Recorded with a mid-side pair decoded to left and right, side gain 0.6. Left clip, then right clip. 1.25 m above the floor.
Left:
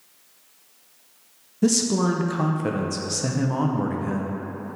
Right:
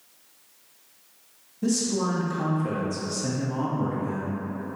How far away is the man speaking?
About 0.5 m.